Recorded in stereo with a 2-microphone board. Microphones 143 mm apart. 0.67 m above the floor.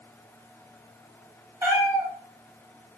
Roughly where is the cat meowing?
Centre.